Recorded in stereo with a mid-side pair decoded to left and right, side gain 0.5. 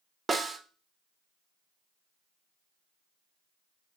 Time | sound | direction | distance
0.3 | a snare drum | 25° right | 0.5 m